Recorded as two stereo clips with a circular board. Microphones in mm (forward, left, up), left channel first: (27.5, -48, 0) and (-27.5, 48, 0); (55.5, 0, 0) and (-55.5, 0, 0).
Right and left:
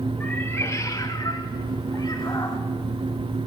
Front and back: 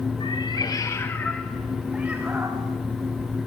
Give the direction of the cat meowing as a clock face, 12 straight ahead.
12 o'clock.